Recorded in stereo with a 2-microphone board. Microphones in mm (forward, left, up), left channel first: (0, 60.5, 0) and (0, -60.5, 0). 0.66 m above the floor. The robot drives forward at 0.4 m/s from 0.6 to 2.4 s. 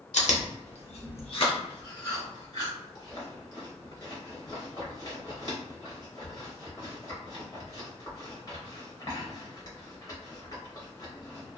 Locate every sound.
0.1 s chewing: 70° left (ahead or behind), 0.6 m; by 11.6 s 30° left (ahead or behind), 1.0 m